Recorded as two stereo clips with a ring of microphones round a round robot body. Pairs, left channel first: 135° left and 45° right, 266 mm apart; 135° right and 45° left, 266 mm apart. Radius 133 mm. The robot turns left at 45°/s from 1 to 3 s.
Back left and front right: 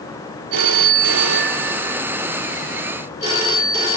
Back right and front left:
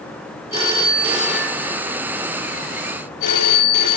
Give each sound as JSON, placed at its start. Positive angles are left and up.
{"t": 0.5, "sound": "a phone ringing", "azimuth_deg": -25, "distance_m": 1.8}